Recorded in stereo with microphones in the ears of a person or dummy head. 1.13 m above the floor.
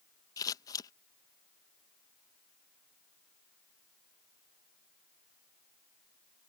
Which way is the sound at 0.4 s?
20° left (ahead or behind).